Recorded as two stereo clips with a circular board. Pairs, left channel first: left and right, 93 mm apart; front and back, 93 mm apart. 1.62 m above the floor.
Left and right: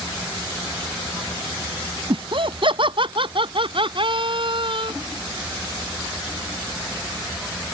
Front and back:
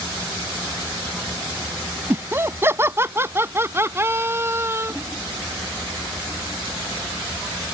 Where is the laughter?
115° right.